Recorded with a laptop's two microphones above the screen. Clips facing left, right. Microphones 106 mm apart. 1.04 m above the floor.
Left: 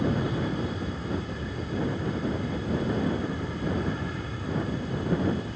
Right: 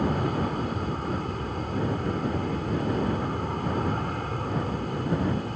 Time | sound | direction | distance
0.0 | an aircraft | 55° right (ahead or behind) | ?